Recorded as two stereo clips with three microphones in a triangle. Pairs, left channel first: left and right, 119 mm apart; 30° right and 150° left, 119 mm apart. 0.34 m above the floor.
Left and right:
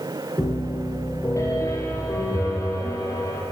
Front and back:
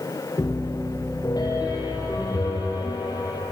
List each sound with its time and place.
0.4 s a piano: 25° left, 4.5 m